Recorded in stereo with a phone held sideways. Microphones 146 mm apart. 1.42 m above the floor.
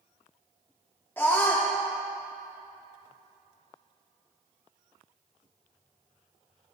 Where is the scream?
15° left (ahead or behind), 0.7 m.